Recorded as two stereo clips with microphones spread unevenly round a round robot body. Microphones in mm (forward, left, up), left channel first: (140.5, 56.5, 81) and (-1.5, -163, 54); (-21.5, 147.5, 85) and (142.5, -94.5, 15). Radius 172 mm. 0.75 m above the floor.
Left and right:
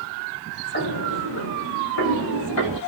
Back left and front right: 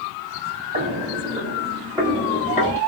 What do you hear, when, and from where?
0.7 s footsteps: 15° left, 1.4 m; by 2.8 s 70° left, 1.7 m